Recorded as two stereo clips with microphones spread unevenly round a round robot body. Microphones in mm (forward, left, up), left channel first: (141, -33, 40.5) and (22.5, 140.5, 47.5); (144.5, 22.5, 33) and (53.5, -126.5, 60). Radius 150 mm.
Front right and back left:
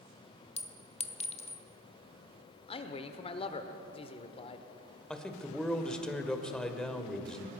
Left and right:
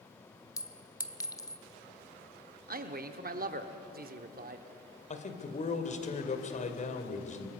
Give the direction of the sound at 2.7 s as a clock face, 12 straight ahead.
4 o'clock.